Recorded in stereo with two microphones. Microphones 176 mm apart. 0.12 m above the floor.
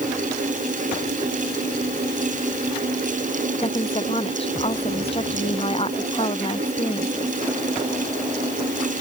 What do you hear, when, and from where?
3.6 s a woman speaking: 35° left (ahead or behind)